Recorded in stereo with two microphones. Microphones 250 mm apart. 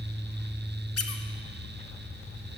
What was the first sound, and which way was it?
A squeak, 70° left (ahead or behind).